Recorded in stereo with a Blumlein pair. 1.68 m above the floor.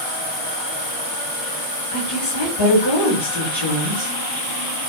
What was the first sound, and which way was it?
A woman speaking, 65° left.